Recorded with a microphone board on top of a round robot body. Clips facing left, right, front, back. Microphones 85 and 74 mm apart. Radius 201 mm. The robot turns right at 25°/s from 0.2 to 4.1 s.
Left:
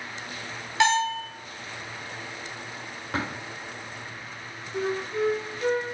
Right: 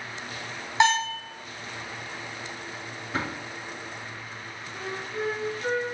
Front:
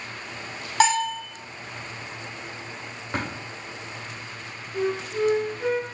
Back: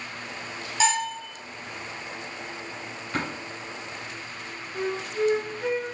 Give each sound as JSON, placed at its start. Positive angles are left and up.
{"t": 0.8, "sound": "a bell", "azimuth_deg": -20, "distance_m": 2.0}
{"t": 3.1, "sound": "tapping", "azimuth_deg": 60, "distance_m": 2.5}
{"t": 4.7, "sound": "a flute", "azimuth_deg": 85, "distance_m": 1.8}